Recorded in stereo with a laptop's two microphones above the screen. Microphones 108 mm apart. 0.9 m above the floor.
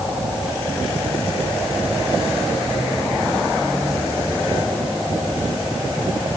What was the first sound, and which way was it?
Only background noise.